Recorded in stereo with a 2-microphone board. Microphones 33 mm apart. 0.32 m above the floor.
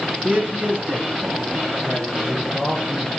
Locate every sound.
0.2 s a man speaking: 55° right (ahead or behind), 5.5 m